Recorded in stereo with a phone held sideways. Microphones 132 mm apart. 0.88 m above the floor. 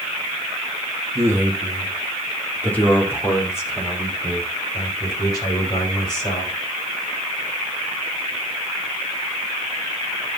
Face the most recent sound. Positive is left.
turn(degrees=35)  # may be behind; listen again after turning